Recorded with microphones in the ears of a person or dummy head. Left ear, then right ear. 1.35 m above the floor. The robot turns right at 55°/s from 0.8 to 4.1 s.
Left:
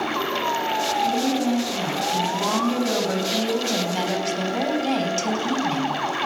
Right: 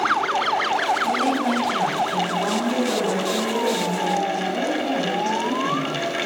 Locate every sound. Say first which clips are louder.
1.1 s a woman speaking: right 2 dB; 75° right, 9.5 m; by 6.0 s 95° left, 9.5 m